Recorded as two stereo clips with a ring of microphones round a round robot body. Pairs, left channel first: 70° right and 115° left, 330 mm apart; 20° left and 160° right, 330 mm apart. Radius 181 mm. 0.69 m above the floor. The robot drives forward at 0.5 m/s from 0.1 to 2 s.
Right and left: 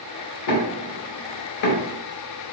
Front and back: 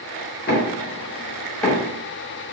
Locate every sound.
0.5 s knocking: 35° right, 1.3 m; by 1.9 s 75° right, 0.9 m